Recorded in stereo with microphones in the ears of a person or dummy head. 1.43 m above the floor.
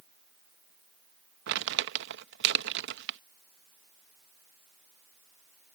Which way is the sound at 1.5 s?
60° right (ahead or behind).